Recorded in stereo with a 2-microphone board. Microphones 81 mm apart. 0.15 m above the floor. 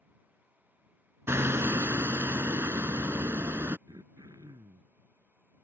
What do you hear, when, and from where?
1.3 s hammering: 35° right (ahead or behind)
3.9 s throat clearing: 55° right (ahead or behind)